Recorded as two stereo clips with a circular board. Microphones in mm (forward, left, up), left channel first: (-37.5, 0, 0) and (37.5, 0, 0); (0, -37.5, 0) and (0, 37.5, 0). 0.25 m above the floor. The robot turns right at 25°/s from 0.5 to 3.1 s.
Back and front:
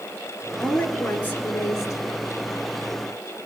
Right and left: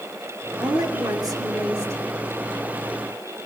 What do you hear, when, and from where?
0.6 s a woman speaking: 100° left, 3 m; by 2.1 s 135° left, 3 m